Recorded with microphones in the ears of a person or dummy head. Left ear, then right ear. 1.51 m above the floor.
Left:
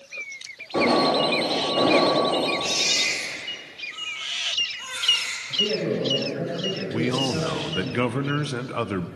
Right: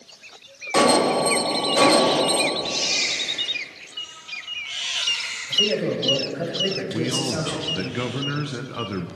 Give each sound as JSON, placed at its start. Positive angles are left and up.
{"t": 0.7, "sound": "an alarm", "side_deg": -70, "distance_m": 4.5}
{"t": 2.6, "sound": "a baby crying", "side_deg": 70, "distance_m": 7.5}
{"t": 5.5, "sound": "a man speaking", "side_deg": -30, "distance_m": 6.5}
{"t": 6.9, "sound": "a man speaking", "side_deg": 25, "distance_m": 0.7}